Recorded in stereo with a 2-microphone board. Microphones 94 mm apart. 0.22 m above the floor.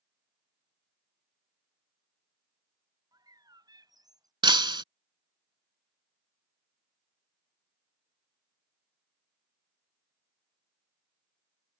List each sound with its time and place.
3.1 s a bird: 45° right (ahead or behind)
4.4 s breaking glass: 60° right (ahead or behind)